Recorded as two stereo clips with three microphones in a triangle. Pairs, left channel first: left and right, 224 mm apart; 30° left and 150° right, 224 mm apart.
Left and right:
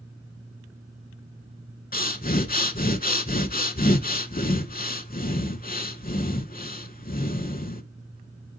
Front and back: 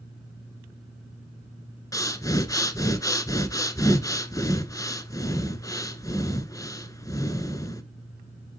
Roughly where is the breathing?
Left.